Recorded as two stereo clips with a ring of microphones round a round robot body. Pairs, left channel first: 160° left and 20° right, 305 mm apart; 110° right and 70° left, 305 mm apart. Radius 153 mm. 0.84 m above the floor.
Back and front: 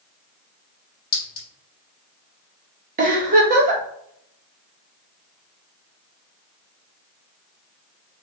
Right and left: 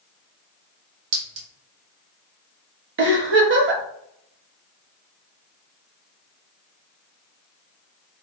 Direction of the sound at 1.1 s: 95° left.